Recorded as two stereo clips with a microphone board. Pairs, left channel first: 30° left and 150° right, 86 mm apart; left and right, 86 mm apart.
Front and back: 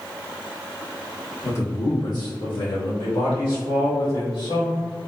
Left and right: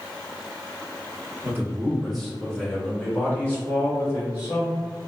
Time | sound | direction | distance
1.4 | a man speaking | 30° right | 1.0 m